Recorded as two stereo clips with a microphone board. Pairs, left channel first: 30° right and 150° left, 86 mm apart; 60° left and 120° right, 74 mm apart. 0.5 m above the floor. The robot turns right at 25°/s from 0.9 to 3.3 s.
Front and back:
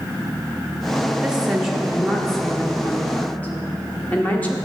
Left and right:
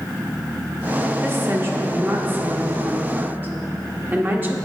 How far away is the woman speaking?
About 1.0 m.